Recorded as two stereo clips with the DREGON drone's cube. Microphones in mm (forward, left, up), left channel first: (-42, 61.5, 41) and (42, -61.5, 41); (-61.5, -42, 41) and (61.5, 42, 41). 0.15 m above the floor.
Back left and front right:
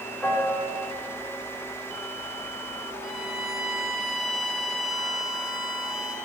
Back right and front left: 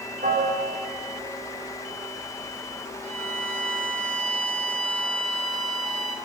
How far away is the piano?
About 4 m.